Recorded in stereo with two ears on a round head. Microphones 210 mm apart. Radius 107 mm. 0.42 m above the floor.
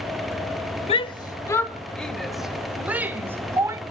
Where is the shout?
25° left (ahead or behind), 1.2 m; by 3.8 s 10° right (ahead or behind), 2.5 m.